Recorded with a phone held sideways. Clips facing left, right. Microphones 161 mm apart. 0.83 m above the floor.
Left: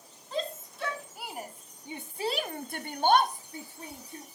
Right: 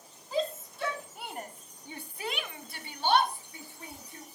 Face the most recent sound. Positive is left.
turn(degrees=30)  # may be behind; listen again after turning